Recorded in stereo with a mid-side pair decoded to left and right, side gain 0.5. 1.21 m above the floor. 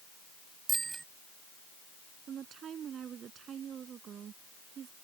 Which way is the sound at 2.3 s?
50° right.